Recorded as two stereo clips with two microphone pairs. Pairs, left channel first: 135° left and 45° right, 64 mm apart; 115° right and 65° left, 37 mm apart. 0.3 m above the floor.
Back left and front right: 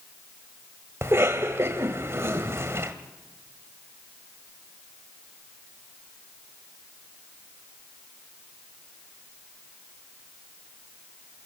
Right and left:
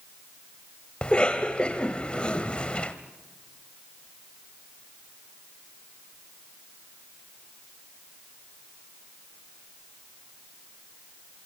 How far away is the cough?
About 1.4 m.